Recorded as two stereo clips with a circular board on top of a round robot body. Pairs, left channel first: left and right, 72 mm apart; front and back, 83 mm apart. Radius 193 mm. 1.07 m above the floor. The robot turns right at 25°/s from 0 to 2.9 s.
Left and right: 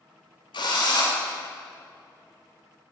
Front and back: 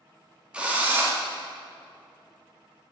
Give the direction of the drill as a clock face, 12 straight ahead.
9 o'clock.